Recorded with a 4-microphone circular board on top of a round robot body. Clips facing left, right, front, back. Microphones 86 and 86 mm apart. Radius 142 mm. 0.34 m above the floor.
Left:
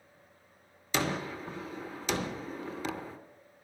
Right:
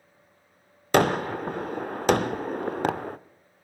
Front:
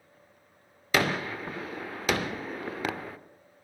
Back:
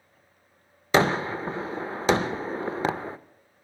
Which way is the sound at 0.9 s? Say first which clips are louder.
Right 11 dB, back 5 dB; 120° right.